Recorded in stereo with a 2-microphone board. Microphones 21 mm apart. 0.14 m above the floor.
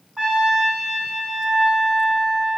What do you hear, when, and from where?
0.2 s a trumpet: 50° right (ahead or behind), 5.5 m